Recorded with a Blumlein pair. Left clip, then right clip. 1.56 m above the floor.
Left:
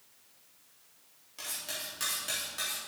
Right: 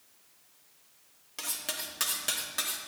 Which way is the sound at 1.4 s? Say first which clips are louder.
Right 2 dB; 65° right.